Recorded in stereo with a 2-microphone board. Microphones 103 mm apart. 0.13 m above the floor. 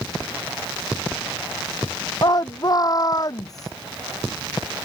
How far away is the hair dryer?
I don't hear a hair dryer.